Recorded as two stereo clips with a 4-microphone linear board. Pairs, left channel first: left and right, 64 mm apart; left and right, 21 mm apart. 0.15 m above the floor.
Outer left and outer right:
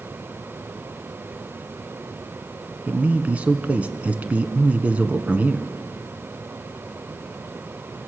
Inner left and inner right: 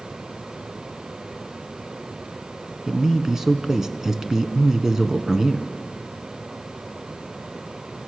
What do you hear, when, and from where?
2.9 s a man speaking: 20° right (ahead or behind), 1.2 m